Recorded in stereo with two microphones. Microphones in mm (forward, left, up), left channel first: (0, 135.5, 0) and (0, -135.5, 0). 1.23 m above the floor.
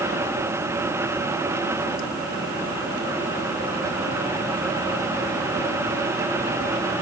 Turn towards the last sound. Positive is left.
No sound to turn to.